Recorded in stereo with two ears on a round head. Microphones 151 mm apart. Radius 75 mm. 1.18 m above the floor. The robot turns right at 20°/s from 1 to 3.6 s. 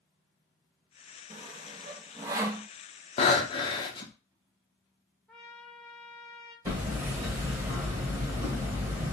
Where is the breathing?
35° left (ahead or behind), 0.6 m; by 4.1 s 30° left (ahead or behind), 0.6 m.